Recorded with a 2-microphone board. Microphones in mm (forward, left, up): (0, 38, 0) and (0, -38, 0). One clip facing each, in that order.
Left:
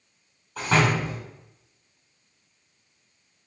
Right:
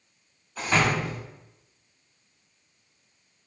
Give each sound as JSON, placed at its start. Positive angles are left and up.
{"t": 0.6, "sound": "a door slam", "side_deg": 80, "distance_m": 3.0}